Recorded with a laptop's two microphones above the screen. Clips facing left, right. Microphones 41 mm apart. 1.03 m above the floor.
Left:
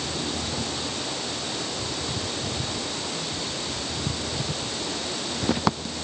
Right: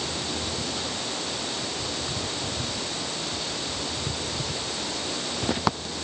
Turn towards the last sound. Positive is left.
No sound to turn to.